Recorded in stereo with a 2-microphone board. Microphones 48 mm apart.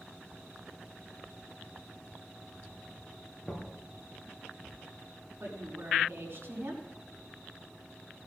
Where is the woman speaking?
60° right (ahead or behind), 4 m.